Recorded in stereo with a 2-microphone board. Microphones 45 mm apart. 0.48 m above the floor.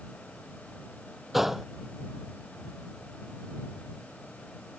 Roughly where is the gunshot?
Centre.